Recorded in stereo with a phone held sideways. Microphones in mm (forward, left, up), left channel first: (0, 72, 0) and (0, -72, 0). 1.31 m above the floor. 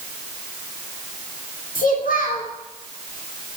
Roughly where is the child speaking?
Left.